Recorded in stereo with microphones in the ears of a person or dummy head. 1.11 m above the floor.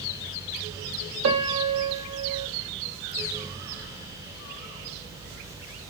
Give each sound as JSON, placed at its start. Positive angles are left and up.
{"t": 1.2, "sound": "a piano", "side_deg": -75, "distance_m": 1.6}